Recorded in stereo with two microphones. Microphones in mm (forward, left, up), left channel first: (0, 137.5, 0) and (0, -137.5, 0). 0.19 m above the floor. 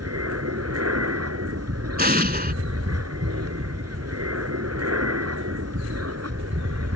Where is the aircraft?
60° right (ahead or behind).